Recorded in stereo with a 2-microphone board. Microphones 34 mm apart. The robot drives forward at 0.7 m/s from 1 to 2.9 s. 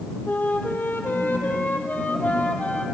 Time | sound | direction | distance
0.3 | a flute | 80° left | 1.9 m